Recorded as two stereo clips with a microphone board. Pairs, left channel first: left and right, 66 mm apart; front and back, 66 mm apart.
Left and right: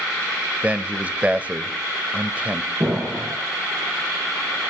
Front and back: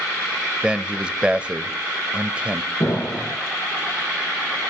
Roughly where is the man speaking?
Behind right.